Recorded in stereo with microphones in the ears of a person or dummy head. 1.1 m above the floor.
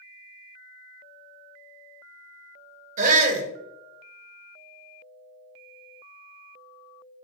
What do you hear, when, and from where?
3.0 s a shout: 35° right (ahead or behind), 0.8 m